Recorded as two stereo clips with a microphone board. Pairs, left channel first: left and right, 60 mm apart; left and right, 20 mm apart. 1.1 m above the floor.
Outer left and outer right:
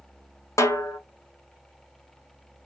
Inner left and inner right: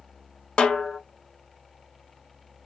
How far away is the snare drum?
About 1.3 m.